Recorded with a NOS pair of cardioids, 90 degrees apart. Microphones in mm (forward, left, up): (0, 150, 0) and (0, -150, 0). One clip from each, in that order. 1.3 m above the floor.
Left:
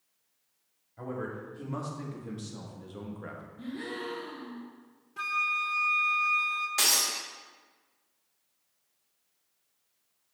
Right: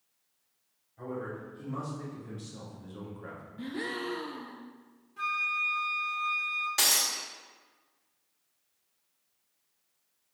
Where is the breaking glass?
10° right, 1.9 m.